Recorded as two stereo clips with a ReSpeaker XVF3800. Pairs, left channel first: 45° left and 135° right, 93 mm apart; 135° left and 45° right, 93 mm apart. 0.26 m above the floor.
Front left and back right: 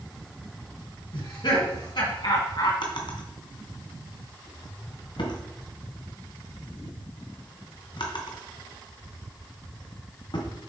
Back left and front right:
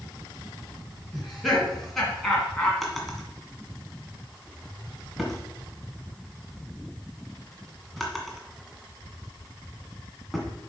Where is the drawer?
45° left, 1.6 m.